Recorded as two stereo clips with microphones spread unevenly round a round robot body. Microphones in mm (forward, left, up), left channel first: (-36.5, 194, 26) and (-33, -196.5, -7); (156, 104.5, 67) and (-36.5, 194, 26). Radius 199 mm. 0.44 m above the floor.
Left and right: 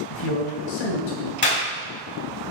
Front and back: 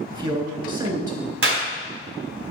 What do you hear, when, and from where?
0.1 s a man speaking: 90° left, 3.5 m
1.4 s a clap: 155° left, 3.5 m